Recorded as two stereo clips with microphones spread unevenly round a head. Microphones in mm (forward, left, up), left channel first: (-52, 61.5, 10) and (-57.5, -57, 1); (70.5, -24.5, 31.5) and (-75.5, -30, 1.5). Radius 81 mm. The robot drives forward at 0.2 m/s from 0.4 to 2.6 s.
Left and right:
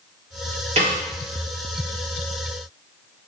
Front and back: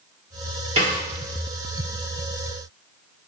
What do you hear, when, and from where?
0.8 s a snare drum: 120° right, 1.1 m; by 1.0 s 125° right, 1.1 m